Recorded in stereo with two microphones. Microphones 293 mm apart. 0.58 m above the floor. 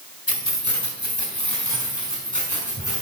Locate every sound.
0.3 s keys jangling: 55° left (ahead or behind), 1.9 m; by 3.0 s 85° left, 5.5 m